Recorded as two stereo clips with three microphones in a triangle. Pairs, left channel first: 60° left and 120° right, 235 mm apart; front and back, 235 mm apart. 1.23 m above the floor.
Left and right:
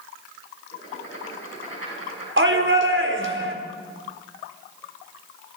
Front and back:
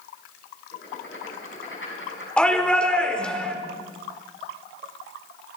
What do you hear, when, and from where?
0.7 s writing: 35° left, 6 m
2.4 s a shout: 85° right, 4.5 m